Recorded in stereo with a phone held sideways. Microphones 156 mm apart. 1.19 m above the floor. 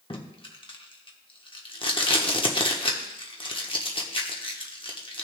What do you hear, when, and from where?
0.1 s tape being pulled: 35° left (ahead or behind), 1.1 m